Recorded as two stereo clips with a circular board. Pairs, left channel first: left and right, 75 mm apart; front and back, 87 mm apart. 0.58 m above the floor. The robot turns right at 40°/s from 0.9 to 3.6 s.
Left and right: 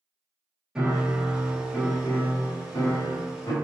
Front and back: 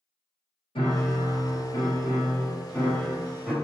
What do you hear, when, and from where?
0.8 s a piano: 10° right, 1.0 m; by 3.5 s 95° left, 1.0 m